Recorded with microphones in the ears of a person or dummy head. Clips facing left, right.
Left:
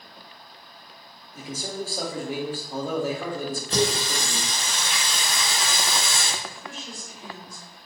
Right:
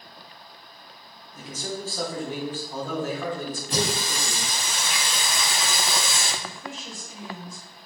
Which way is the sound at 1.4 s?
10° left (ahead or behind).